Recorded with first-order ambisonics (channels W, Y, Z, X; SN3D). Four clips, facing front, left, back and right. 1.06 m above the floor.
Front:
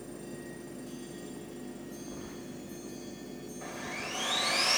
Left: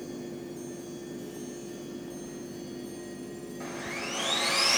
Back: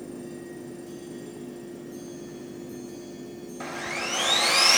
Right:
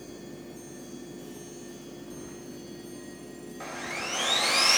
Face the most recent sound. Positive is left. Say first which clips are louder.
# right 2 dB, back 8 dB
turn(degrees=-165)